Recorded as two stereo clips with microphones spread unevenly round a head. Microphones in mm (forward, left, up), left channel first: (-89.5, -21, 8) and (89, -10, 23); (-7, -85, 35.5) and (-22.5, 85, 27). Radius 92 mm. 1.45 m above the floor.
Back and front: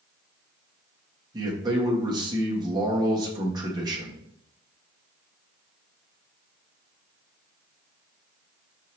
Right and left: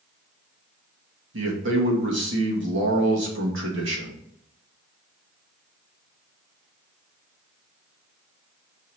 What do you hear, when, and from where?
1.3 s a man speaking: 75° left, 2 m